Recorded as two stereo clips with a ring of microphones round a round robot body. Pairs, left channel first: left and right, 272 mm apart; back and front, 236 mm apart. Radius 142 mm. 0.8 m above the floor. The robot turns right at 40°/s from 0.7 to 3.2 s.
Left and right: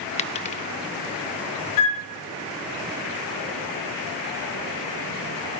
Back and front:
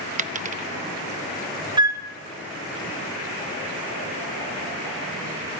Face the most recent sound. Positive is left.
turn(degrees=130)